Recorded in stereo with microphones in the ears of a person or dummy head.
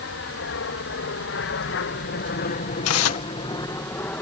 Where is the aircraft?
65° left (ahead or behind); by 4.2 s 10° left (ahead or behind).